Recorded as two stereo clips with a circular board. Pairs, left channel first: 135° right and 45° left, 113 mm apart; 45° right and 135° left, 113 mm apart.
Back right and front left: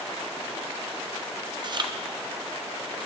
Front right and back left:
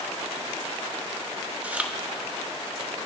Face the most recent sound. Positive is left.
turn(degrees=65)